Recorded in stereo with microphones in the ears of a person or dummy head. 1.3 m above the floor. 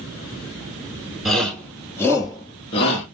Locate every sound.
1.2 s a shout: centre (ahead or behind), 1.5 m; by 3.0 s 40° left (ahead or behind), 1.1 m